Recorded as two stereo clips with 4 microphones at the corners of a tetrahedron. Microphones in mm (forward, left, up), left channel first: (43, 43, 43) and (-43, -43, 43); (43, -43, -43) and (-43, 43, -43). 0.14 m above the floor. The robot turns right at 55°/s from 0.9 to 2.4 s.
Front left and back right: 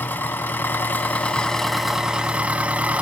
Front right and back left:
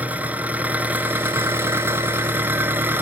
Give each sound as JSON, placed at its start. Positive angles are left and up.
{"t": 0.0, "sound": "an engine running", "azimuth_deg": 85, "distance_m": 1.0}